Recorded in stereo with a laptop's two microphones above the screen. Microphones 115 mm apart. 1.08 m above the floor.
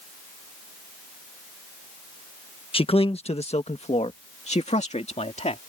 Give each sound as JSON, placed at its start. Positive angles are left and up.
{"t": 2.7, "sound": "a man speaking", "side_deg": 55}